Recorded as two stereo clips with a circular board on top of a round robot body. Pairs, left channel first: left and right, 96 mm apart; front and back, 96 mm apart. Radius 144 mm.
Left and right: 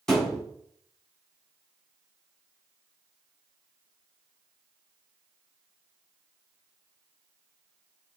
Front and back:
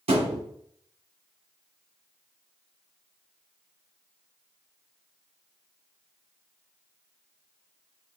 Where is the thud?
175° left, 2.5 m.